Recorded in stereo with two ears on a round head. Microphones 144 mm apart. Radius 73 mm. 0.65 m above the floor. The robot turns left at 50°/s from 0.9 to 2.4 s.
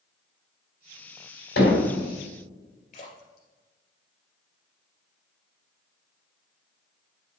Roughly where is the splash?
Left.